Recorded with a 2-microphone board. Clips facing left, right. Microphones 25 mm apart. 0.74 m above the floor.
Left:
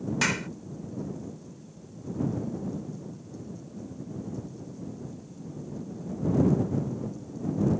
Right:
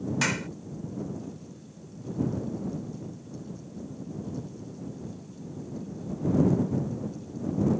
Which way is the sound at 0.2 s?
5° left (ahead or behind).